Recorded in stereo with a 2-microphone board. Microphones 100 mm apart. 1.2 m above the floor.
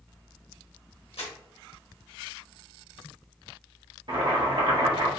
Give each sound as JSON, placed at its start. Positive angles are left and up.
{"t": 1.2, "sound": "crumpling", "side_deg": 70, "distance_m": 1.0}
{"t": 4.1, "sound": "boiling", "side_deg": -55, "distance_m": 0.9}